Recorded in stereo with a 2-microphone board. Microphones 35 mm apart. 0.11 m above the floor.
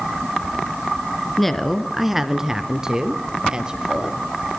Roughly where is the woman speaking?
Centre.